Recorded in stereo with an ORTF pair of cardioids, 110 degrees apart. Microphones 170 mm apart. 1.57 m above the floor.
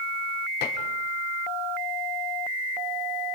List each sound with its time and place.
0.6 s dishes clattering: 70° left, 3 m